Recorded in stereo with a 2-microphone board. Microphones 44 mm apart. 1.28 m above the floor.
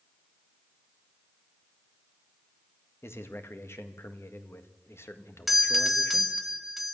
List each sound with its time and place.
3.0 s a man speaking: 65° left (ahead or behind), 2.0 m
5.5 s a doorbell: 5° right (ahead or behind), 1.4 m